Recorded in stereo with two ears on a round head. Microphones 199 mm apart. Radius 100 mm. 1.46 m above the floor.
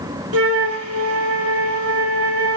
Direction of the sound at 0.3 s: 70° right (ahead or behind).